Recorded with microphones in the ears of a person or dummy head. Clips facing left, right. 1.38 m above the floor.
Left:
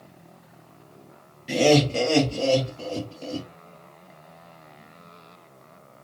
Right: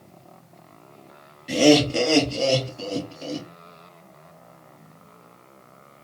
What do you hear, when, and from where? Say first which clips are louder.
1.5 s laughter: right 2 dB; centre (ahead or behind), 1.1 m; by 3.5 s 35° right (ahead or behind), 3.5 m